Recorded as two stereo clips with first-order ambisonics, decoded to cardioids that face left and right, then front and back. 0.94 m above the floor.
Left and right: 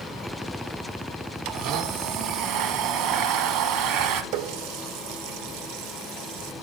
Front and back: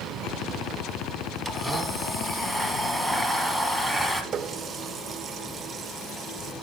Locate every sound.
1.4 s a blender: 85° right, 1.2 m
4.3 s a running tap: 115° right, 0.7 m